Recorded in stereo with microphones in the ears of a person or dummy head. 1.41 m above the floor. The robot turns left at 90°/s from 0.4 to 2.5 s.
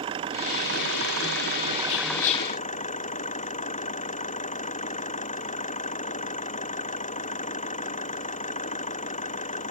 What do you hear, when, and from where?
0.0 s an engine running: 30° right; by 9.7 s 140° left
1.9 s whispering: 70° left (ahead or behind); by 2.5 s 20° left (ahead or behind)